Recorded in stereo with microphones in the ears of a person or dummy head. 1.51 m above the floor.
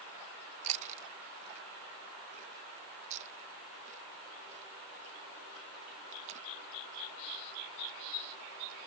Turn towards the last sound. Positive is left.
turn(degrees=-40)  # may be behind; listen again after turning